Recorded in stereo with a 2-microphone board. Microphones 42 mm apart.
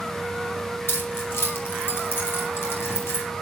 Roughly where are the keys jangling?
Left.